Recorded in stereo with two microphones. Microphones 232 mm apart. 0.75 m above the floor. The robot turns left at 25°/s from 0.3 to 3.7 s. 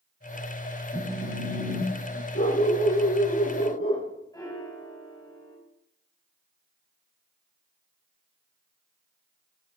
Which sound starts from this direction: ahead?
A phone buzzing, at 0.9 s.